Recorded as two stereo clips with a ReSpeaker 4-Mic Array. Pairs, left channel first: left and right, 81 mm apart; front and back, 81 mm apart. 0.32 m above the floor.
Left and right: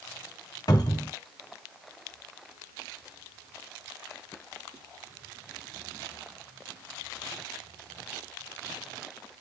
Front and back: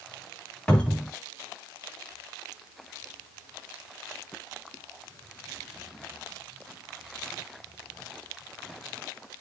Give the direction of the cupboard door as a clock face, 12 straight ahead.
9 o'clock.